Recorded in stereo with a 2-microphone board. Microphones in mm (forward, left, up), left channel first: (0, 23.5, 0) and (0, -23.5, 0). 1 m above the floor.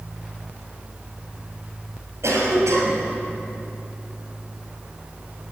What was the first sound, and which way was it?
A cough, 85° right.